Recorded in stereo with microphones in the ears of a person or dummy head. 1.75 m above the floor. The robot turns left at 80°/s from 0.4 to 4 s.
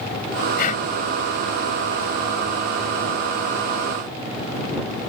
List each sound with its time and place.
0.6 s breathing: 55° left (ahead or behind); by 0.8 s 35° left (ahead or behind)